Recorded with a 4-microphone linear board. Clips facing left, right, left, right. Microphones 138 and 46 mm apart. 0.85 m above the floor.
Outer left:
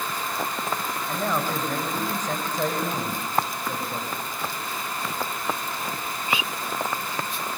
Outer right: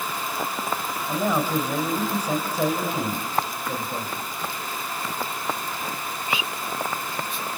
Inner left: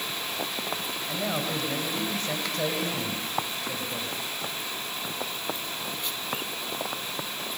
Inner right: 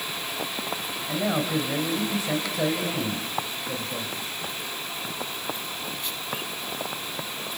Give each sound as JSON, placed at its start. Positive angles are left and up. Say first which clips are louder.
{"t": 1.1, "sound": "a man speaking", "louder": "outer right 4 dB, inner right 5 dB", "side_deg": -10, "distance_m": 4.5}